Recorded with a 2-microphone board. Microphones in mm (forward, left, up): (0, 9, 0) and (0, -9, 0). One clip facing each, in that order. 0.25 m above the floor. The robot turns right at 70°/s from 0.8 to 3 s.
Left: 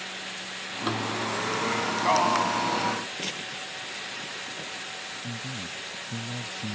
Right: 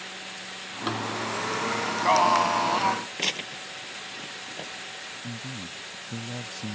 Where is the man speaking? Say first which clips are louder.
Left 2 dB; 30° right (ahead or behind).